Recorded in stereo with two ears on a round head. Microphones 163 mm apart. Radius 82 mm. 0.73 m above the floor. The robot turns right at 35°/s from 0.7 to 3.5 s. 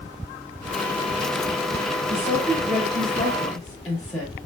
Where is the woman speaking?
45° right, 3.5 m; by 4.3 s straight ahead, 3.5 m.